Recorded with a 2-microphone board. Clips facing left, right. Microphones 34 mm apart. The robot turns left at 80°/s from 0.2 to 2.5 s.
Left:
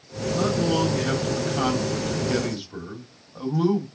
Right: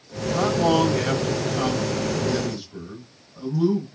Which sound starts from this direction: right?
A man speaking, at 0.3 s.